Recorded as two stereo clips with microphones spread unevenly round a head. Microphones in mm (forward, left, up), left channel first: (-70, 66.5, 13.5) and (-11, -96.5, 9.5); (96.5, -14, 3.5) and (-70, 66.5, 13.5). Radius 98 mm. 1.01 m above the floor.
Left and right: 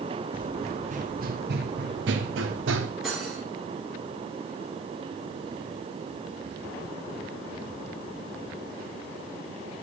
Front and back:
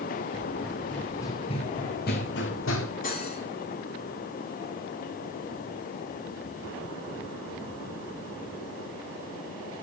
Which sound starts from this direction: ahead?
Cutlery clinking, at 3.0 s.